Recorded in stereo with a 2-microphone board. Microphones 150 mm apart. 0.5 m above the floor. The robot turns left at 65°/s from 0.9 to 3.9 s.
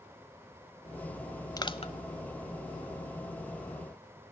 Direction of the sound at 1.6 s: 25° left (ahead or behind).